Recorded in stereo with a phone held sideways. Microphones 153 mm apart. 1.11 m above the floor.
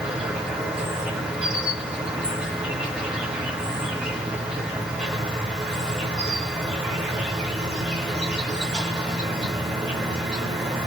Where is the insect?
5° right (ahead or behind), 1.4 m.